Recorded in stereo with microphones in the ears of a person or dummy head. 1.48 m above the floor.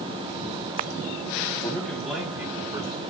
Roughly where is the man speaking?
Centre.